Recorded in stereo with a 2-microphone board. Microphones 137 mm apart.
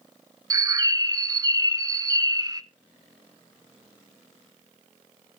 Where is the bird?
25° right (ahead or behind), 0.5 m.